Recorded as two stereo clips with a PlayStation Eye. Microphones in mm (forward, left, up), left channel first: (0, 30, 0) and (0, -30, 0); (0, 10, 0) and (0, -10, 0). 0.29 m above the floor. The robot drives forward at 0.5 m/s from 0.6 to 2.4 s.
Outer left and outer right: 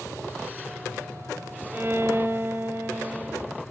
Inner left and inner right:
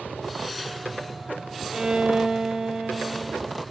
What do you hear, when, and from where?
1.7 s a violin: 40° right (ahead or behind), 0.7 m